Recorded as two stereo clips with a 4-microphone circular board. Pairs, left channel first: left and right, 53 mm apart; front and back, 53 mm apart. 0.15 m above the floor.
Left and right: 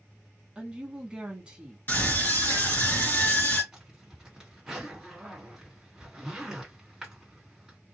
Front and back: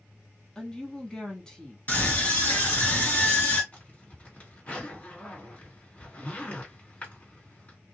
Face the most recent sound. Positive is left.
turn(degrees=-20)